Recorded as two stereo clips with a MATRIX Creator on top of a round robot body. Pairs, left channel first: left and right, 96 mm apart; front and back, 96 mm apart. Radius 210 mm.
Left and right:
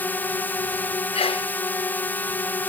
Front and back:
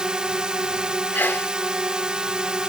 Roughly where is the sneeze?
Left.